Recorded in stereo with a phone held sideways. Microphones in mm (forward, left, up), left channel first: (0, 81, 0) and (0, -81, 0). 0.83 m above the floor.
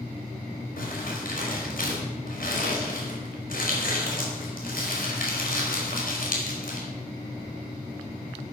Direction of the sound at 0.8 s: 60° left (ahead or behind).